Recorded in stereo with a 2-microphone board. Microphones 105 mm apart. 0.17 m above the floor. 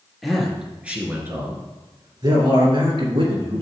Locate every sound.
0.2 s a man speaking: centre (ahead or behind), 2.5 m; by 3.6 s 65° right (ahead or behind), 3 m